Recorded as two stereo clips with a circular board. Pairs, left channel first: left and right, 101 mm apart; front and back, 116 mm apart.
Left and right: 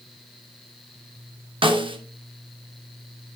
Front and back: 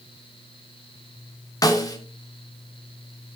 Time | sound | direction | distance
1.6 | a snare drum | 60° right | 1.0 m